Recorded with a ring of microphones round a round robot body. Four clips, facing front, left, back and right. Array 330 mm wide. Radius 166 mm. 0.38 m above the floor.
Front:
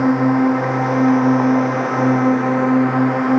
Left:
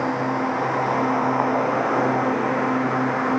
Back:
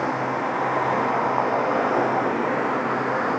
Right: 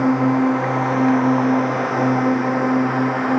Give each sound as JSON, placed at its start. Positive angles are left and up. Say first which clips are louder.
{"t": 0.0, "sound": "a drone", "louder": "right 6 dB, front 10 dB", "azimuth_deg": -30}